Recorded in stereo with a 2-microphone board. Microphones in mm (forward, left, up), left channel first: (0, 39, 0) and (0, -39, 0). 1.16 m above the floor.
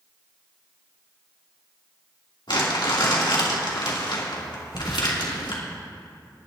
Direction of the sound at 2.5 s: 85° left.